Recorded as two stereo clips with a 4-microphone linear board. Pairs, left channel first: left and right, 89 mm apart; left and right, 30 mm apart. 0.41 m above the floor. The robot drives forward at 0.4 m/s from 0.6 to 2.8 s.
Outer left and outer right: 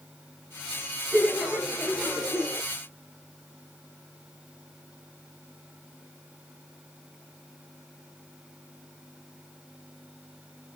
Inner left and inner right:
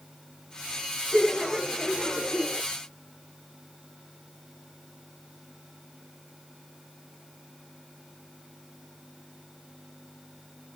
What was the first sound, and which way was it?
Laughter, centre (ahead or behind).